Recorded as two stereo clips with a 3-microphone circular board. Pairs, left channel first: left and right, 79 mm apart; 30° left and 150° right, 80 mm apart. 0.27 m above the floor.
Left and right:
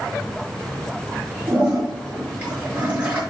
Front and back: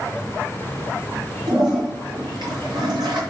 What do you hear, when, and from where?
1.5 s a toilet flushing: 160° right, 4.5 m